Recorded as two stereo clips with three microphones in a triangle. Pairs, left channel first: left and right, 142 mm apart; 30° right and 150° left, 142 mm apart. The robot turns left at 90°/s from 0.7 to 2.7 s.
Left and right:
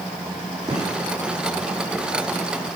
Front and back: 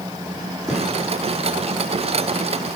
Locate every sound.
0.7 s a gunshot: 120° right, 7 m; by 0.9 s 140° right, 7 m